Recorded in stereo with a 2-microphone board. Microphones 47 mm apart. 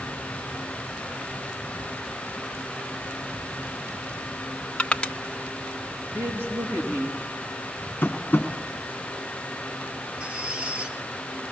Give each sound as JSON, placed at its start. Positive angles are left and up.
{"t": 4.8, "sound": "crushing", "side_deg": 25, "distance_m": 0.8}
{"t": 6.1, "sound": "a woman speaking", "side_deg": -45, "distance_m": 6.5}
{"t": 8.0, "sound": "tapping", "side_deg": 45, "distance_m": 2.5}
{"t": 10.2, "sound": "a squeak", "side_deg": -20, "distance_m": 2.5}